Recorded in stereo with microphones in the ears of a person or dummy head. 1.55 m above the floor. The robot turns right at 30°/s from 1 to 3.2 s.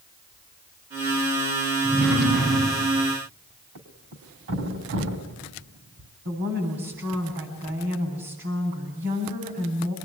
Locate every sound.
1.8 s a drawer: 175° left, 7.5 m; by 3.0 s 150° right, 7.5 m
3.8 s a thud: 70° right (ahead or behind), 3.5 m
6.2 s a woman speaking: 40° right (ahead or behind), 10 m